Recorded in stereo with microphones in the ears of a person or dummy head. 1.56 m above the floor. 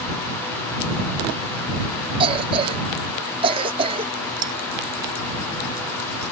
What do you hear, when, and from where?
2.2 s a cough: 35° right (ahead or behind)
4.4 s cutlery clinking: 30° right (ahead or behind)